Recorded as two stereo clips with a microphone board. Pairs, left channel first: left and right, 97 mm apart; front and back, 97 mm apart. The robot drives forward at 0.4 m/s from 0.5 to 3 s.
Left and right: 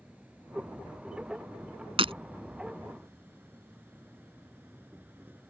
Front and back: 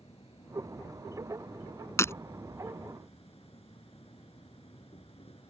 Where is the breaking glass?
65° right.